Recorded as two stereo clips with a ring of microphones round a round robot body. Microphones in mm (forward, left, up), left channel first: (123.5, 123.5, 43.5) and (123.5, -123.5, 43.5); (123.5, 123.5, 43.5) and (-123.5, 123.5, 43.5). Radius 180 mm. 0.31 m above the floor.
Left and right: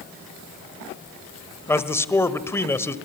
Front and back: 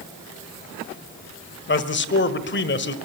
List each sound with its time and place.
1.7 s a man speaking: 15° left, 1.5 m